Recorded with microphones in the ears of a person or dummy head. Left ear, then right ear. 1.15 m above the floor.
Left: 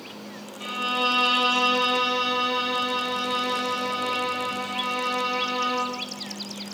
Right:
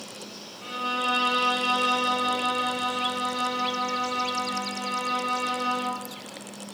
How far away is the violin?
About 1.7 m.